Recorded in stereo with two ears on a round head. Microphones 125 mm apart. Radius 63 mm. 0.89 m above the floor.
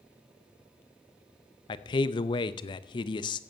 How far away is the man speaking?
About 0.6 m.